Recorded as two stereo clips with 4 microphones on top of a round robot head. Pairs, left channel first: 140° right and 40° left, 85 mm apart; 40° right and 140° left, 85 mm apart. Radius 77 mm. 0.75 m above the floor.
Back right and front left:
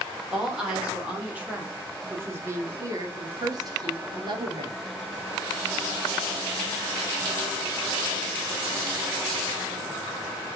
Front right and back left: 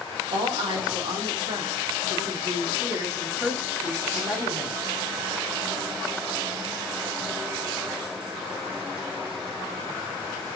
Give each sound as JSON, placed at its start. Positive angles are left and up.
{"t": 0.3, "sound": "a woman speaking", "azimuth_deg": 120, "distance_m": 3.0}